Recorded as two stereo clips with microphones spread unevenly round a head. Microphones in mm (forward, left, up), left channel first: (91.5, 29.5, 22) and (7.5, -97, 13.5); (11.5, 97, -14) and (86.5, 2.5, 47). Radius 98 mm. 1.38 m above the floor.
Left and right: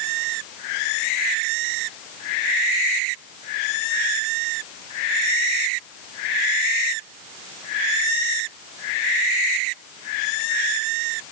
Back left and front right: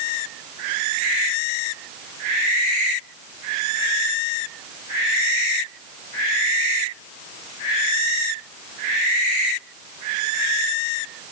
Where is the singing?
No singing in this recording.